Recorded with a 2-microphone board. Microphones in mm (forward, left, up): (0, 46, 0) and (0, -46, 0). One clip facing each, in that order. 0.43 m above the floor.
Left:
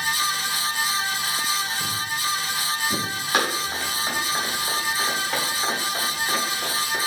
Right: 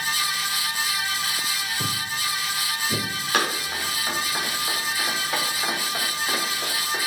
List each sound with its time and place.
1.8 s footsteps: 65° right (ahead or behind), 1.2 m; by 3.0 s 10° right (ahead or behind), 2.0 m
3.3 s running footsteps: 10° left (ahead or behind), 3 m; by 7.0 s 20° right (ahead or behind), 4 m